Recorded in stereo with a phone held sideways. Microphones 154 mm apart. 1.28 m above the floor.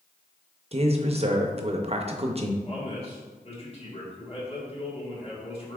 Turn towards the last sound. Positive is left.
turn(degrees=40)  # may be behind; listen again after turning